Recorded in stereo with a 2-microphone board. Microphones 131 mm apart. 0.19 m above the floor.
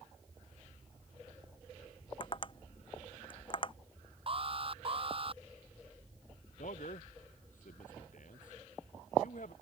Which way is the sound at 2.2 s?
35° left (ahead or behind).